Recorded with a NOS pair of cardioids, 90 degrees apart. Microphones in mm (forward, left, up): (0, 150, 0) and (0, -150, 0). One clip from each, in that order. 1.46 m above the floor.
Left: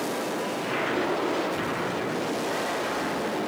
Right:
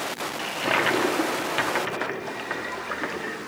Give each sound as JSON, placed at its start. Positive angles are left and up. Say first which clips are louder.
{"t": 0.4, "sound": "a toilet flushing", "louder": "right 4 dB", "azimuth_deg": -70, "distance_m": 0.9}